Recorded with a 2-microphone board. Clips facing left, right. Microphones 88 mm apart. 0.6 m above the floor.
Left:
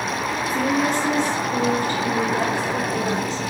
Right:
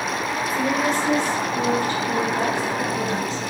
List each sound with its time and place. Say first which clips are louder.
0.5 s a woman speaking: left 1 dB; 55° left (ahead or behind), 1.2 m